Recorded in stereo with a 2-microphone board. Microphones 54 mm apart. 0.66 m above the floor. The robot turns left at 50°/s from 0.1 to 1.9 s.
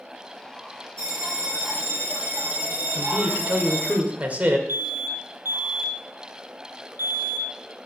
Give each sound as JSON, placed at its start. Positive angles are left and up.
{"t": 1.0, "sound": "a bell", "azimuth_deg": -90, "distance_m": 5.0}
{"t": 3.0, "sound": "a man speaking", "side_deg": -30, "distance_m": 1.8}
{"t": 4.7, "sound": "an alarm", "side_deg": -50, "distance_m": 1.1}